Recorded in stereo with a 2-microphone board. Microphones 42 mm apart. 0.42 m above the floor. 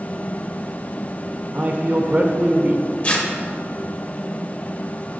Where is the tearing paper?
35° left (ahead or behind), 1.0 m.